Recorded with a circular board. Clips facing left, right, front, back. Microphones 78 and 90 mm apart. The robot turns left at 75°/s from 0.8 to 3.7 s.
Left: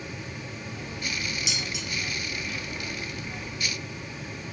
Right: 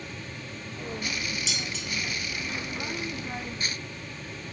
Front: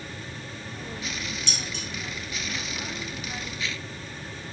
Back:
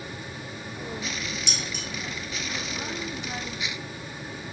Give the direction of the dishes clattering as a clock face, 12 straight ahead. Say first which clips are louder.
Left 1 dB, back 1 dB; 7 o'clock.